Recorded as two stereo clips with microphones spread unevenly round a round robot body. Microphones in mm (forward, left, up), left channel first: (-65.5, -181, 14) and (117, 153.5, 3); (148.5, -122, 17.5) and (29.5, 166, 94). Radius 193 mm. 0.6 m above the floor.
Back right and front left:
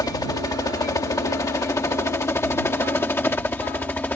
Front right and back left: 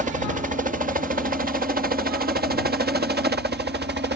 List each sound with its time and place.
0.0 s a helicopter: 175° left; by 4.2 s 160° left